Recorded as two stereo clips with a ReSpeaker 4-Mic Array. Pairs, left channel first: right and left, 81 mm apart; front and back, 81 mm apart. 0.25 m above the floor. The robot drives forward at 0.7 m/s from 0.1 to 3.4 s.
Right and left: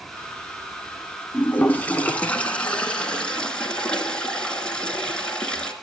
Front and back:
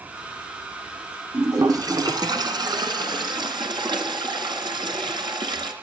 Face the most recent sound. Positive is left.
turn(degrees=-170)